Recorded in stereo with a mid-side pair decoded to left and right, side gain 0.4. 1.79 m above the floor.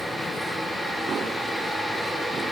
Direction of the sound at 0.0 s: 5° left.